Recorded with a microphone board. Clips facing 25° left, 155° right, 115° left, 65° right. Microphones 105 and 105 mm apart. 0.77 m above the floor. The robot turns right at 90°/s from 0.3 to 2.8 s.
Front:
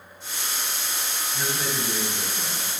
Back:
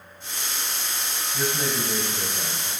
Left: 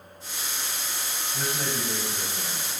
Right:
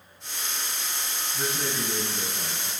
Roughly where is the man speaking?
Behind left.